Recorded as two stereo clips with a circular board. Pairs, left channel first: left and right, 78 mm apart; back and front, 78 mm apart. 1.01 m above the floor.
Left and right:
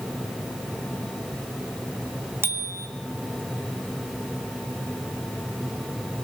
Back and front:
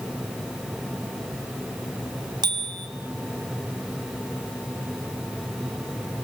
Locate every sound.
2.4 s a bicycle bell: 25° right, 2.5 m